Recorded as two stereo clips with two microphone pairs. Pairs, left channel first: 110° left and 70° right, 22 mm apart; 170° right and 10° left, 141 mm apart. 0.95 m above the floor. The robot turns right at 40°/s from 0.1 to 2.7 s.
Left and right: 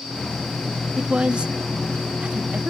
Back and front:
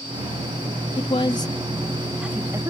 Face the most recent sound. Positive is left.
turn(degrees=-50)